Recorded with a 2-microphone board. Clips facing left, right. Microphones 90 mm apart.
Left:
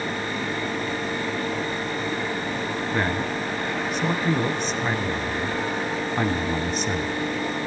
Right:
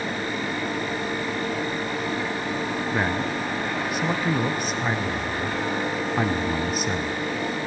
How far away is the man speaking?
About 1.1 m.